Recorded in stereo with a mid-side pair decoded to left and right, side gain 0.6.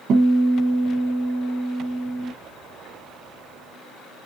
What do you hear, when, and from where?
0.1 s a guitar: 50° right, 1.8 m